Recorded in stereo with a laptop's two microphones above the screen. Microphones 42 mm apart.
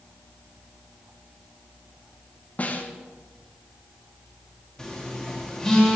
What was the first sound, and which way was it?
A snare drum, 40° left (ahead or behind).